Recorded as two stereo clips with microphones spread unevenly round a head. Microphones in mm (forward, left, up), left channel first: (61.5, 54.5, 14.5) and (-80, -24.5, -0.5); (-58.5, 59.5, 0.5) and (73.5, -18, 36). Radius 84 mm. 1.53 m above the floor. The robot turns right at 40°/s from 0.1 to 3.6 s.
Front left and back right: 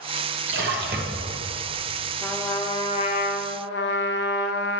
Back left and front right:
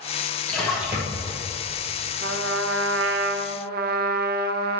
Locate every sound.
0.5 s a splash: 130° right, 1.2 m; by 1.4 s 95° right, 1.2 m
2.2 s a trumpet: 60° right, 0.5 m; by 4.8 s 5° right, 0.5 m